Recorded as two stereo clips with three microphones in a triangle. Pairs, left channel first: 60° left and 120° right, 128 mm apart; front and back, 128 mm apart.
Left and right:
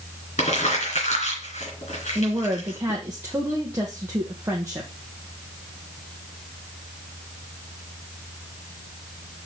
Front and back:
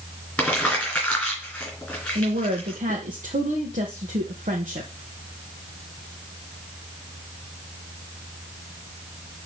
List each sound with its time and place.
0.4 s crumpling: 80° left, 3 m
2.1 s a woman speaking: 170° left, 1.2 m